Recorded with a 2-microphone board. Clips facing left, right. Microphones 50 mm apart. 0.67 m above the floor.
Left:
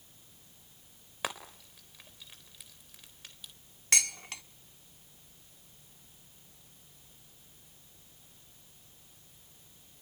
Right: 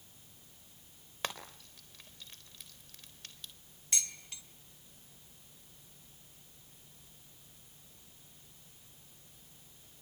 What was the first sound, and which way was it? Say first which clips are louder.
Frying: left 2 dB; 5° left (ahead or behind).